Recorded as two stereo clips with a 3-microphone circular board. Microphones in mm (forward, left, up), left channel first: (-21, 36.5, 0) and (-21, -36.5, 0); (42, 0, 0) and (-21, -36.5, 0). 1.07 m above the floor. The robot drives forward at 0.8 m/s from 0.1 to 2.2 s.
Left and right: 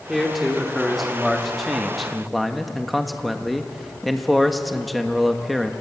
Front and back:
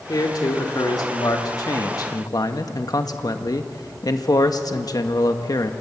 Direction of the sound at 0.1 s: Straight ahead.